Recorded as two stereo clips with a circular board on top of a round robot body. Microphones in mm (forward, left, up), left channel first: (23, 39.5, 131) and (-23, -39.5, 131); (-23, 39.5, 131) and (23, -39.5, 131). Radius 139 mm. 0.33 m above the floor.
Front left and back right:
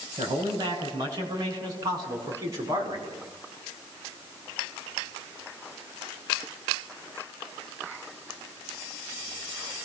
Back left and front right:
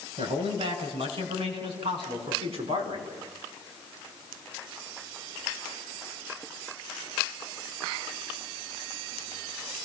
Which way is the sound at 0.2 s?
75° right.